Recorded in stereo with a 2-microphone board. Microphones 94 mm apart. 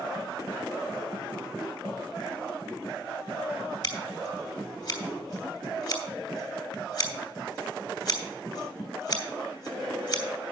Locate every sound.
3.8 s scissors: 55° left (ahead or behind), 2.5 m